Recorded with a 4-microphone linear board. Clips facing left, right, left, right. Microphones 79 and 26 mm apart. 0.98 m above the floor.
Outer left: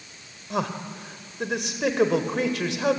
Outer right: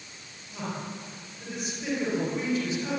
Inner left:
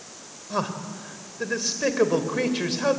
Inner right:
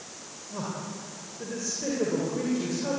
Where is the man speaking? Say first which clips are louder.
Outer left 7 dB, inner left 7 dB; 85° left, 3.5 m.